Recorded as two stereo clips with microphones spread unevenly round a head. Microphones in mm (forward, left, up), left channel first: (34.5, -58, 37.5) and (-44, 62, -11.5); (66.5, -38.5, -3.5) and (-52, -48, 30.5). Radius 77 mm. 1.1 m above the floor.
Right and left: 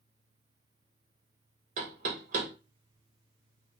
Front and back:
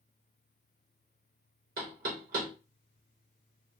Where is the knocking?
160° left, 1.2 m.